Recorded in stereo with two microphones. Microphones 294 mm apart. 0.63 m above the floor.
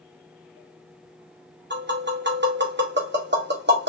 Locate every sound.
1.7 s tapping: 35° right (ahead or behind), 1.1 m